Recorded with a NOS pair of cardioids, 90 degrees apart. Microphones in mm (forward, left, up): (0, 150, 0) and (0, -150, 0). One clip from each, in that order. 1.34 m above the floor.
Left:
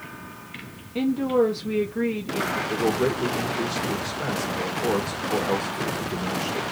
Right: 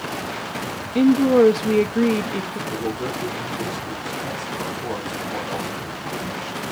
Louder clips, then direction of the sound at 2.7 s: Left 3 dB; 45° left.